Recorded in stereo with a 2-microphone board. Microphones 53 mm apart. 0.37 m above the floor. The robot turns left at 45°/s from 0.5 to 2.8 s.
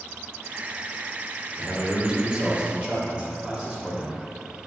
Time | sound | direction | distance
1.6 | a man speaking | 20° right (ahead or behind) | 0.8 m